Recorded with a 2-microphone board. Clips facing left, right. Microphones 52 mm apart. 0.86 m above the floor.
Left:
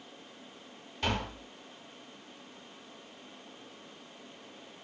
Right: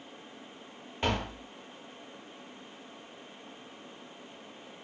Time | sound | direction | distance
1.0 | tapping | 25° right (ahead or behind) | 1.1 m